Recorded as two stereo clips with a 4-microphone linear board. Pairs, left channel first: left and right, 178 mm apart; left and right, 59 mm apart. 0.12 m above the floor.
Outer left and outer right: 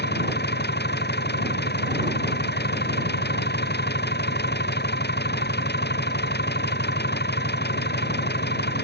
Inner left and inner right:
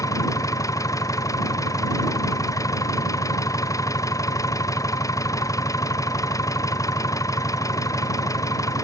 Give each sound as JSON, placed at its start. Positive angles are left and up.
{"t": 0.0, "sound": "an engine running", "side_deg": 75}